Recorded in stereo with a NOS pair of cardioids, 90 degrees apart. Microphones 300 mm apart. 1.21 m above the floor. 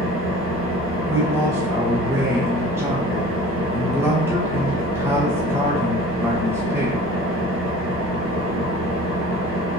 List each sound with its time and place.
0.0 s an engine running: 45° right, 1.2 m
1.1 s a man speaking: 10° right, 0.9 m